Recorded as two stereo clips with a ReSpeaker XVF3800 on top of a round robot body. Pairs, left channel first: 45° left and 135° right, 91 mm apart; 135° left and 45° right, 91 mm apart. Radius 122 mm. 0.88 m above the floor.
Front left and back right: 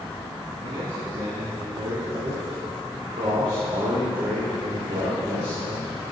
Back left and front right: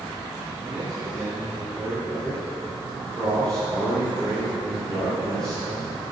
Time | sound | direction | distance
0.6 | a man speaking | 130° right | 2 m
2.1 | a man speaking | 140° right | 3.5 m